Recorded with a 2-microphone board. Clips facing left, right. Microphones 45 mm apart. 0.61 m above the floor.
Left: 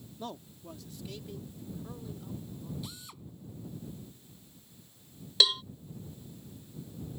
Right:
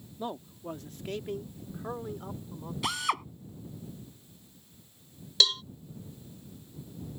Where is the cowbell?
10° left (ahead or behind).